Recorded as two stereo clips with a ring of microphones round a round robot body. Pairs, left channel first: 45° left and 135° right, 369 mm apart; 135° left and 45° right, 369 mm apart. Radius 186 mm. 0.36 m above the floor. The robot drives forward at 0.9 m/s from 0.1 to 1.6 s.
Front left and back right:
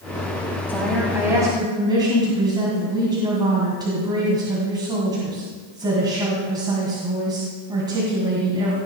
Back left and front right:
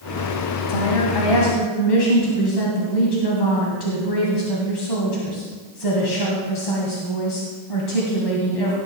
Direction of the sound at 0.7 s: 130° left.